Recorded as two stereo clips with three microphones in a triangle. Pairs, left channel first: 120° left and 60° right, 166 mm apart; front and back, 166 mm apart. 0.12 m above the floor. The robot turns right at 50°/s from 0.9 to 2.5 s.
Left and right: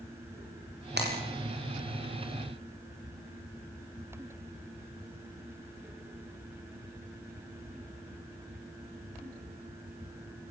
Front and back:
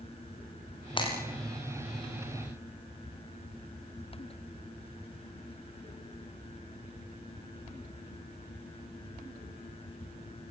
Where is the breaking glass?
60° right, 9 m; by 1.2 s 50° right, 9 m.